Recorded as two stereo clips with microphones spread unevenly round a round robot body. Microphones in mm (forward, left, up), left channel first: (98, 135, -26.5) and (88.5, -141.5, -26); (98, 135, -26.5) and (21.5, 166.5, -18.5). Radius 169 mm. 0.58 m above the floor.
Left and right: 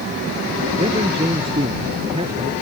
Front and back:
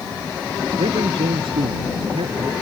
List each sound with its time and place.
0.8 s a man speaking: 170° right